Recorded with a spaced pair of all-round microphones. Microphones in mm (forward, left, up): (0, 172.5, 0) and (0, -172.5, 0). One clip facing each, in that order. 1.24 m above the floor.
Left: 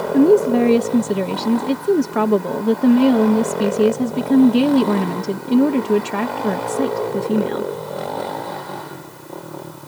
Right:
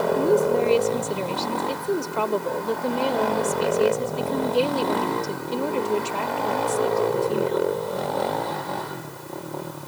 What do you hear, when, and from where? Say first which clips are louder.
0.1 s a woman speaking: left 9 dB; 75° left (ahead or behind)